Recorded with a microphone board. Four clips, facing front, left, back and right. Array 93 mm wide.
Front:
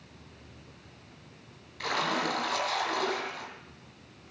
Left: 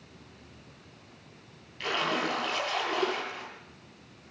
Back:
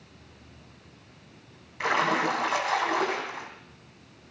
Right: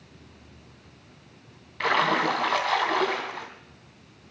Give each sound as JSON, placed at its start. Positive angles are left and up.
{"t": 1.8, "sound": "a splash", "azimuth_deg": -115, "distance_m": 2.5}